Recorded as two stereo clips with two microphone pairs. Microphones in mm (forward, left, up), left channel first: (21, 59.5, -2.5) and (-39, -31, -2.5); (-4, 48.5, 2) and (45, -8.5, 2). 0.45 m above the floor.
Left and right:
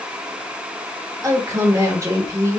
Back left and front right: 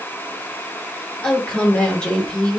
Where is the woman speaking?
160° right, 1.4 m.